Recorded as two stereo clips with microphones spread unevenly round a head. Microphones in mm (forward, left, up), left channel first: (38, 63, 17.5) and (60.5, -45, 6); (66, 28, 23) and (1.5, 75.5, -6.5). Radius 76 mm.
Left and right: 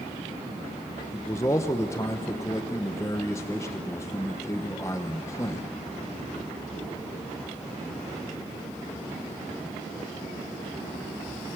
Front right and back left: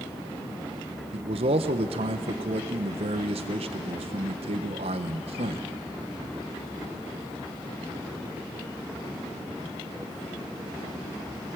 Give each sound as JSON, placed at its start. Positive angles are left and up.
{"t": 1.1, "sound": "a man speaking", "azimuth_deg": 165, "distance_m": 0.8}